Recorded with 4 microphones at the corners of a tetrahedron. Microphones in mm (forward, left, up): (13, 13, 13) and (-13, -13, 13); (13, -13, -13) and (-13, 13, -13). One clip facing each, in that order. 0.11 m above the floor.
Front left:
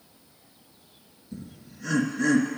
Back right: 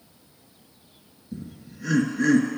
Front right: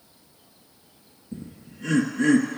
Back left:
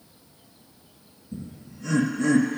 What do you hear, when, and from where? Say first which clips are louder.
1.3 s laughter: back right 3 dB, even; 65° right, 2 m